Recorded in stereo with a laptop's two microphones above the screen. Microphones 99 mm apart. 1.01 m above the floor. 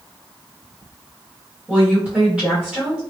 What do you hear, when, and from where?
1.7 s a woman speaking: 15° right (ahead or behind), 1.6 m